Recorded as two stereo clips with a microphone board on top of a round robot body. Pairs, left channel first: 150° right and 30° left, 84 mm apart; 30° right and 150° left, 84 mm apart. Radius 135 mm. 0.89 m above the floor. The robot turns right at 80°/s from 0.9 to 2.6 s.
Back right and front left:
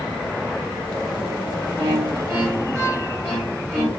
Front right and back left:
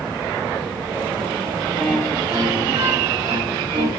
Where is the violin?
55° left, 1.6 m; by 3.9 s 120° left, 1.6 m.